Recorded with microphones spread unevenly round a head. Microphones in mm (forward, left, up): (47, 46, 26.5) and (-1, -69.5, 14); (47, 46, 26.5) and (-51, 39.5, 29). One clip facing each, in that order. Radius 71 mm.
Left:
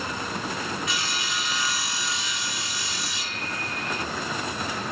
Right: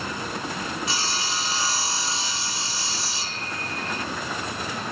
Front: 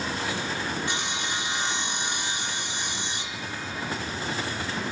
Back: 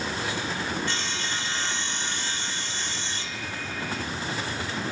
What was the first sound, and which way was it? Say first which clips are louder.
Sawing: right 2 dB, front 1 dB; 70° right.